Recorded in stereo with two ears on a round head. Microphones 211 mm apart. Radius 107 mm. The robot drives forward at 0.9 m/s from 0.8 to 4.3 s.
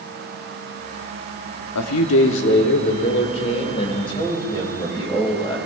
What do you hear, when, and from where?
1.8 s a man speaking: 80° left, 1.0 m; by 5.6 s 20° left (ahead or behind), 2.5 m